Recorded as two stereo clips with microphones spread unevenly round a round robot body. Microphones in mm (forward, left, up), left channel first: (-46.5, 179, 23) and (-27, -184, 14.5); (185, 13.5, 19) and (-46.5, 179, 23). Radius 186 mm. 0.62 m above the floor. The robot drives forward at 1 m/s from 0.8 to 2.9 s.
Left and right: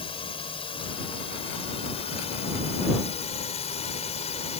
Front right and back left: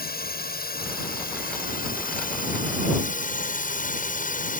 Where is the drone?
20° left.